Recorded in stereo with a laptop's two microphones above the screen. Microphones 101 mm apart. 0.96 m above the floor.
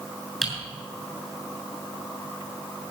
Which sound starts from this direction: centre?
Typing on a keyboard, at 0.4 s.